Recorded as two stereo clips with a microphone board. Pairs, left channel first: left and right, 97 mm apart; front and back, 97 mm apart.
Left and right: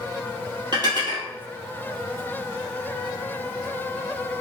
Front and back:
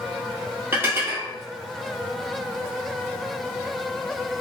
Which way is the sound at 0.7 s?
115° right.